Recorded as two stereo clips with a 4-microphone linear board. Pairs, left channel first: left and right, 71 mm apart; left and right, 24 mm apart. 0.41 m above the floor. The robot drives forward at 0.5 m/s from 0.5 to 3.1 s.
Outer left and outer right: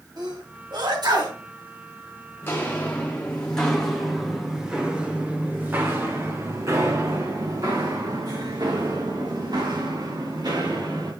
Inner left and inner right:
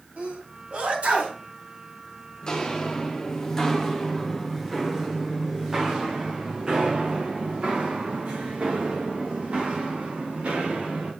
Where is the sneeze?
70° right (ahead or behind), 2.5 m; by 1.4 s 65° right (ahead or behind), 2.5 m.